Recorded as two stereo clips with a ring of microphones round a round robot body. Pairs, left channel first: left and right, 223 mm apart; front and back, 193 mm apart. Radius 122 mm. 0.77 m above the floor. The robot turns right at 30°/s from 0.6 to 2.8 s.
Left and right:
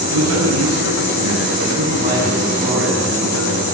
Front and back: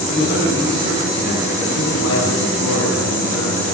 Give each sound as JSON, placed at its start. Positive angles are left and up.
{"t": 0.1, "sound": "a man speaking", "azimuth_deg": -75, "distance_m": 8.5}